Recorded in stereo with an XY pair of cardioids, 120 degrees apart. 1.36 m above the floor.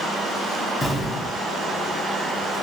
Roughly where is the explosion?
Ahead.